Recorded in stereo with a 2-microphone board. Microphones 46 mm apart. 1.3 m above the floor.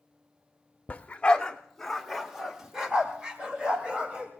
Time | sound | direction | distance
0.9 | a dog barking | 30° left (ahead or behind) | 0.9 m